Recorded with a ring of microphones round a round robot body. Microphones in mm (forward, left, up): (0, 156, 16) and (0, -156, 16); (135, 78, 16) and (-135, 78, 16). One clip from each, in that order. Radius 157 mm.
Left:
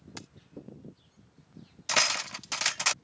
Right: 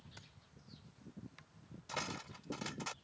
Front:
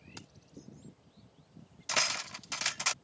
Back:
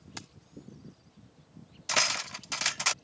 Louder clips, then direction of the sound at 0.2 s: Left 13 dB, back 7 dB; 120° left.